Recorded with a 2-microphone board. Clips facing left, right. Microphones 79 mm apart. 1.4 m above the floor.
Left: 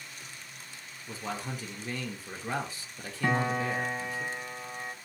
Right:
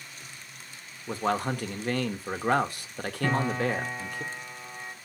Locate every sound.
1.1 s a man speaking: 65° right (ahead or behind), 1.0 m
3.2 s a piano: 20° left (ahead or behind), 1.8 m